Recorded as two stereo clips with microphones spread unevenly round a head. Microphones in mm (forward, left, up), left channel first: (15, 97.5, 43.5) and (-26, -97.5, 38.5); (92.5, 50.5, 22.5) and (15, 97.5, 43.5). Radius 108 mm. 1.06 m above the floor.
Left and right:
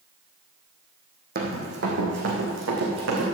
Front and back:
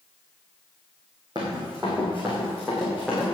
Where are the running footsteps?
145° right, 3 m; by 3.2 s 125° right, 4.5 m.